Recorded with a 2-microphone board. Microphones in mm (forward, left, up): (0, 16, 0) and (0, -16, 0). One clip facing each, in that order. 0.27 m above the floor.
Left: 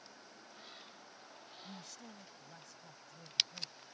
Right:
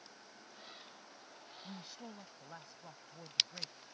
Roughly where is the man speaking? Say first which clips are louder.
Right 3 dB; right.